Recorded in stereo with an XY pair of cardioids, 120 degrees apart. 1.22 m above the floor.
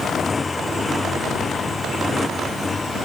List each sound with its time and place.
0.0 s a motorcycle: 20° left; by 3.0 s 15° left